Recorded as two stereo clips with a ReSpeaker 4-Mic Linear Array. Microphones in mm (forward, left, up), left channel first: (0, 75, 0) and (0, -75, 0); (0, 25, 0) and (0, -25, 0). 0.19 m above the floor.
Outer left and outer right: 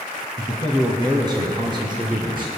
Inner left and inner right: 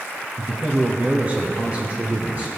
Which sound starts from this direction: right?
A man speaking, at 0.4 s.